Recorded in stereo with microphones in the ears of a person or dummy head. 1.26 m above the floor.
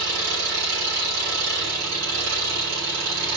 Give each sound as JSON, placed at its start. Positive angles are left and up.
{"t": 0.0, "sound": "an engine running", "side_deg": -75, "distance_m": 4.5}